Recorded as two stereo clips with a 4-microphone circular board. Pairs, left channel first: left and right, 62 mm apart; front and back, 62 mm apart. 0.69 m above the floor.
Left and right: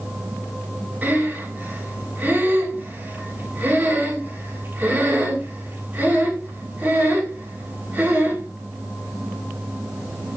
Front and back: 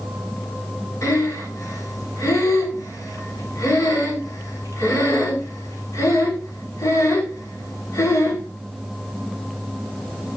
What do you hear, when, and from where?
1.0 s breathing: 30° right, 6 m